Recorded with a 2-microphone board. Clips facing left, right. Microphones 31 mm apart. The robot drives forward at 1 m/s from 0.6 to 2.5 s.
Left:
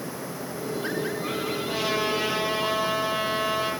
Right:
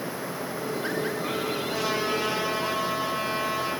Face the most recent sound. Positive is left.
turn(degrees=40)  # may be behind; listen again after turning